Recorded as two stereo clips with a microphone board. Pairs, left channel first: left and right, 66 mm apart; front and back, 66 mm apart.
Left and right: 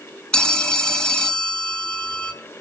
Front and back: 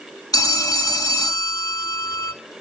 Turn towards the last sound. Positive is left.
turn(degrees=15)